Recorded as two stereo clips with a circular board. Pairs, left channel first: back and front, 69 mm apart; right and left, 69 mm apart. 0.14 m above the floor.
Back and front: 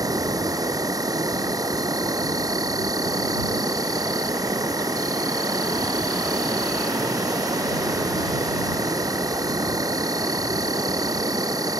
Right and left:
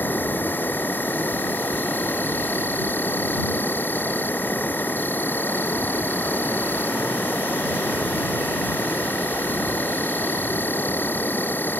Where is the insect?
30° right.